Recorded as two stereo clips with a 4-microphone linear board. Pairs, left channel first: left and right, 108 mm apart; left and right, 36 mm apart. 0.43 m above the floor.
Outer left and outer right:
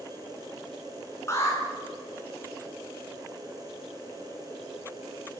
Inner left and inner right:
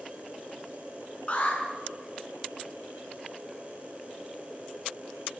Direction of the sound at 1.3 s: 30° left (ahead or behind).